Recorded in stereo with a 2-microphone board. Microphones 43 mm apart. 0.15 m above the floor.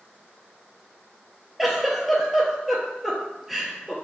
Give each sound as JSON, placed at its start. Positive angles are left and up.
{"t": 1.6, "sound": "a giggle", "side_deg": -5, "distance_m": 0.8}